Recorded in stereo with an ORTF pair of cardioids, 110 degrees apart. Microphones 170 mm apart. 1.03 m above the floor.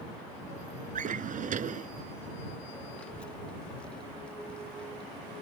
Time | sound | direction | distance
0.9 | a drawer | 50° right | ?
3.0 | a child speaking | 5° left | ?